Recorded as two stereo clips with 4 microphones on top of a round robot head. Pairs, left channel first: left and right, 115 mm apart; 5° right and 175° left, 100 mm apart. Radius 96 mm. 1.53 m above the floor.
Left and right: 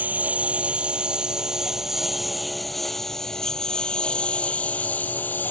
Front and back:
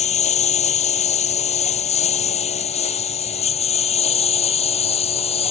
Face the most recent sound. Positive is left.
turn(degrees=10)